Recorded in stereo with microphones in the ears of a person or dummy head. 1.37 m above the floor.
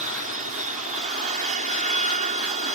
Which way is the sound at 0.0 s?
50° right (ahead or behind).